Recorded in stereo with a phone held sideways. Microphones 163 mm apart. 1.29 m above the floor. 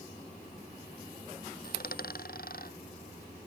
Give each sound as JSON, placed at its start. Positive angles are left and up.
{"t": 1.6, "sound": "a dropped coin", "side_deg": 65}